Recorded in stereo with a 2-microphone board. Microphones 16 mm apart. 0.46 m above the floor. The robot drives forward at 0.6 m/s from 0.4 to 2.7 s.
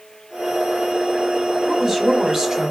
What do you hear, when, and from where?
1.7 s a woman speaking: 30° right (ahead or behind), 1.5 m; by 2.7 s 40° right (ahead or behind), 1.1 m